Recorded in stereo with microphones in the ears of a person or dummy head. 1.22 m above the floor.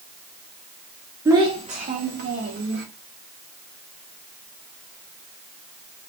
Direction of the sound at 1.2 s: 20° right (ahead or behind).